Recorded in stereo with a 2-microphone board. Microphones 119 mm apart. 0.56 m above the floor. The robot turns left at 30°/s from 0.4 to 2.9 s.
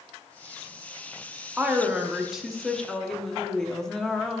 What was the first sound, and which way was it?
A woman speaking, 15° right (ahead or behind).